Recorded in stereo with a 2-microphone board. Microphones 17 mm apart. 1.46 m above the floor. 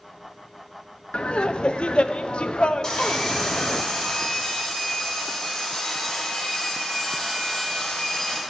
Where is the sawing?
45° left (ahead or behind), 3 m.